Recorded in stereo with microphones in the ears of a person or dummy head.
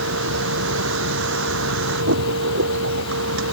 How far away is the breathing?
I don't hear breathing.